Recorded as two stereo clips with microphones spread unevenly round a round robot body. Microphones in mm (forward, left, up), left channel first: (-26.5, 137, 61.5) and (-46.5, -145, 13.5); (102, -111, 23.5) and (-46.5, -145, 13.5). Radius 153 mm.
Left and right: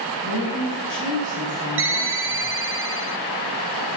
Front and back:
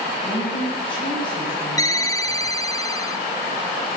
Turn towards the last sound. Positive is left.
turn(degrees=-60)